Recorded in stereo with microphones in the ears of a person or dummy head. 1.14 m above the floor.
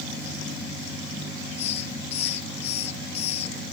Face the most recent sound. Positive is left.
turn(degrees=35)  # may be behind; listen again after turning